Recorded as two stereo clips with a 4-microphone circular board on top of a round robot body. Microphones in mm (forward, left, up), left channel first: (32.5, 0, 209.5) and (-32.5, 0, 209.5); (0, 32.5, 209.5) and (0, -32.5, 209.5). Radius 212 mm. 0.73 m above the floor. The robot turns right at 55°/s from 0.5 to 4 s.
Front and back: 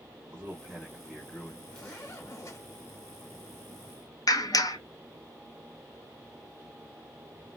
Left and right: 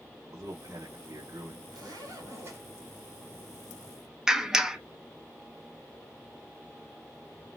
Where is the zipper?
75° right, 1.8 m; by 2.6 s 25° right, 1.8 m.